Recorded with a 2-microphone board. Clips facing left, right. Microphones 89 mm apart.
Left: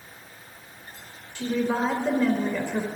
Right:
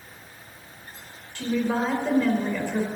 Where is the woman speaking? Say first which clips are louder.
Even; 10° left (ahead or behind), 1.9 m.